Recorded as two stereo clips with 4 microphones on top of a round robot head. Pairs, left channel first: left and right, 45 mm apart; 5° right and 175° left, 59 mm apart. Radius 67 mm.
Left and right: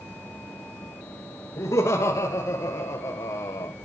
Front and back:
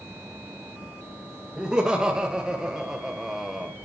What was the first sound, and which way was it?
Laughter, 100° left.